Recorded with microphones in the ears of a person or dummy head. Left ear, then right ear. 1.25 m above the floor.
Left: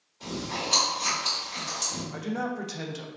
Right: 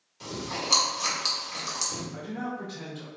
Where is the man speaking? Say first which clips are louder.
Left 3 dB; 85° left, 0.6 m.